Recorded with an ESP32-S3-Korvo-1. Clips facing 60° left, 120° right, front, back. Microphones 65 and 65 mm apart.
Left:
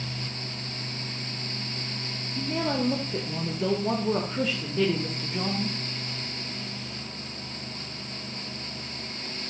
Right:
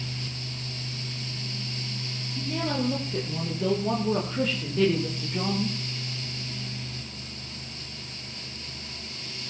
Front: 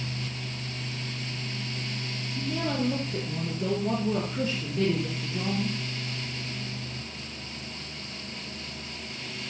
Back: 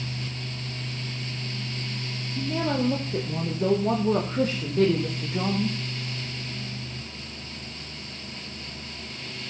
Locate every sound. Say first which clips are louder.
2.4 s a woman speaking: left 1 dB, back 3 dB; 120° left, 3.5 m; by 5.8 s 155° left, 5.5 m